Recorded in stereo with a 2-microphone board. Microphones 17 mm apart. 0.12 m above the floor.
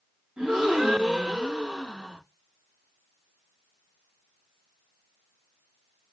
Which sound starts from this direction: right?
A gasp, at 0.4 s.